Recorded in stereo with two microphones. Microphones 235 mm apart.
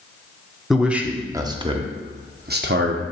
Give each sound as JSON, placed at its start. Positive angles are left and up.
{"t": 0.7, "sound": "a man speaking", "side_deg": 0, "distance_m": 1.1}